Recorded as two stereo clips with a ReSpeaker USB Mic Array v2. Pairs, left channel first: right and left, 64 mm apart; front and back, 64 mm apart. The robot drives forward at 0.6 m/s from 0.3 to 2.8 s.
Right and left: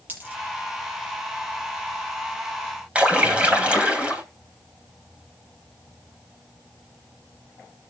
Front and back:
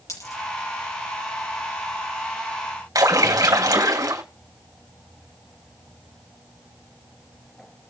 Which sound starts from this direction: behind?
A splash, at 3.0 s.